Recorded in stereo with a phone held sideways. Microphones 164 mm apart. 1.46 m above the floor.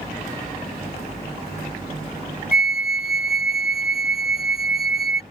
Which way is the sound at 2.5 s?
70° left (ahead or behind).